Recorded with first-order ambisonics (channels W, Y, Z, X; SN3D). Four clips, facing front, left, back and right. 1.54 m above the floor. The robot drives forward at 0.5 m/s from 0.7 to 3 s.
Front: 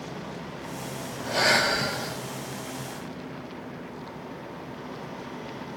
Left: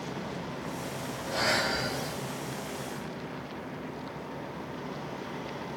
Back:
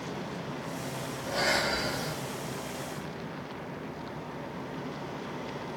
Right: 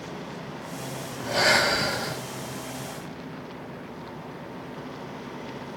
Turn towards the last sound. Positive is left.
turn(degrees=-130)